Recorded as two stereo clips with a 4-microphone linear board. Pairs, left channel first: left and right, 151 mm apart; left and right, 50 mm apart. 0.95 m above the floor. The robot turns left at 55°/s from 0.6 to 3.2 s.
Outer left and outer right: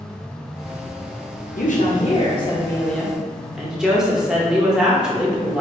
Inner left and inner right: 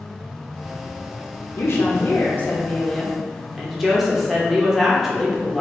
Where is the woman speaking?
85° left, 0.8 m; by 5.6 s 5° right, 0.8 m.